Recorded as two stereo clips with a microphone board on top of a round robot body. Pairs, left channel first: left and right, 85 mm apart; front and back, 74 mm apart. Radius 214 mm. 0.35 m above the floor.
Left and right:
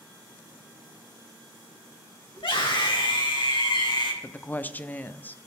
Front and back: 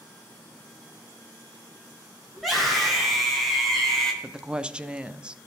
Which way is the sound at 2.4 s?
90° left.